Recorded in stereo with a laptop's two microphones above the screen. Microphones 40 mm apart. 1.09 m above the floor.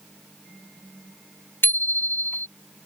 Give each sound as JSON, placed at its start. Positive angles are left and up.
{"t": 1.6, "sound": "a bicycle bell", "side_deg": 65}